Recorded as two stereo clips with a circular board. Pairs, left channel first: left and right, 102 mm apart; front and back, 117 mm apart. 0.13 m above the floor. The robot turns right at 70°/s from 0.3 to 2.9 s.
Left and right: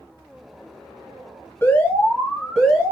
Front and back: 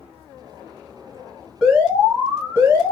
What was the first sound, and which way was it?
An alarm, 105° left.